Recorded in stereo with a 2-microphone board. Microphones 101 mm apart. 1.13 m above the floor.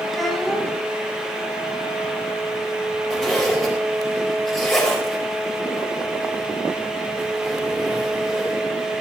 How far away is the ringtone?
No ringtone in this recording.